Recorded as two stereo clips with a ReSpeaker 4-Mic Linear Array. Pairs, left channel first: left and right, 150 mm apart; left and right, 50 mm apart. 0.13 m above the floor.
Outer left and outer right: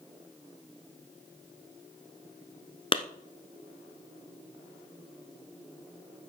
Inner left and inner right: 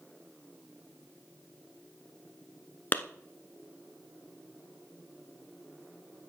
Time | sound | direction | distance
2.9 | a clap | 40° left (ahead or behind) | 1.1 m